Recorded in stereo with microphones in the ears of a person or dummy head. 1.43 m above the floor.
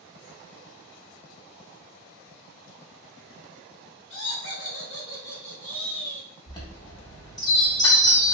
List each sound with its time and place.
4.1 s laughter: 60° left (ahead or behind), 0.9 m; by 6.3 s 25° right (ahead or behind), 0.9 m
6.5 s a chime: 20° left (ahead or behind), 0.6 m